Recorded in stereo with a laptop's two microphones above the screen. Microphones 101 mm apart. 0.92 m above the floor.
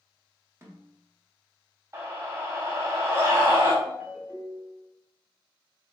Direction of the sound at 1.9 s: 30° right (ahead or behind).